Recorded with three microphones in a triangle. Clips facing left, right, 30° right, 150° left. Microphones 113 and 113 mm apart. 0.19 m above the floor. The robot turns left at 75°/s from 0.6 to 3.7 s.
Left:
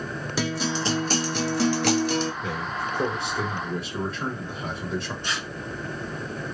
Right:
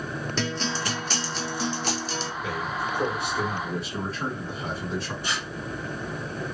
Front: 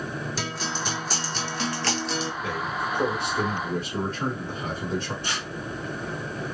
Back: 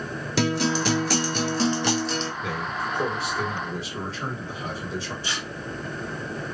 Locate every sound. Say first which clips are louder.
0.4 s a guitar: left 4 dB, back 8 dB; 170° left, 0.6 m; by 2.3 s 45° left, 0.6 m
2.4 s a man speaking: even, even; 90° left, 1.9 m; by 5.1 s 5° right, 1.9 m
5.2 s tearing paper: even, even; 5° right, 1.3 m